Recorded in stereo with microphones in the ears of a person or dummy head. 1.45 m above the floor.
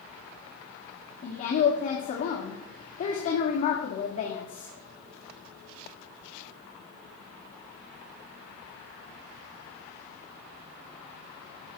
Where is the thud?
No thud in this recording.